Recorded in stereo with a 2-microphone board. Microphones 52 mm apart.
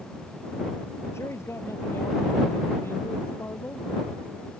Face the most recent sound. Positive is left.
turn(degrees=40)  # may be behind; listen again after turning